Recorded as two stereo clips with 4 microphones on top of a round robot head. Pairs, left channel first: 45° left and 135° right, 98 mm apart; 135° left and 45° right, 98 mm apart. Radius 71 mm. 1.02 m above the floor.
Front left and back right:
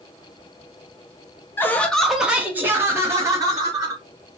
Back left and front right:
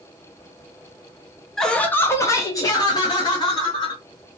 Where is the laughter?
55° left, 0.6 m; by 4.0 s 175° left, 1.3 m.